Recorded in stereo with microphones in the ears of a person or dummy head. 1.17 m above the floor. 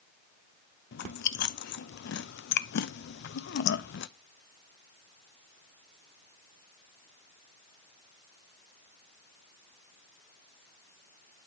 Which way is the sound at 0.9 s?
65° left (ahead or behind).